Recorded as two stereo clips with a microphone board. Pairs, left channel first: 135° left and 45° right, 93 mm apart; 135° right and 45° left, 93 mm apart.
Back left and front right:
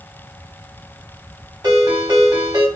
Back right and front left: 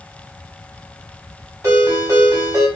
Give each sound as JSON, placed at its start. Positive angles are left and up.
{"t": 1.6, "sound": "a ringtone", "azimuth_deg": -5, "distance_m": 1.5}